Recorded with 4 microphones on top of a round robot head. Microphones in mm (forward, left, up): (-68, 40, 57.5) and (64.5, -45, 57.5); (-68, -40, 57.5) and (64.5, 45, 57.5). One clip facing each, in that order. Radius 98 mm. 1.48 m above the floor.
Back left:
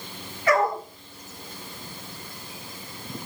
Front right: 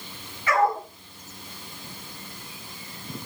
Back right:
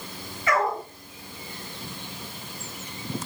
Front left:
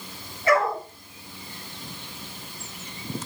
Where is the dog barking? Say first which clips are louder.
Back left 1 dB, front left 3 dB; 90° left, 9 m.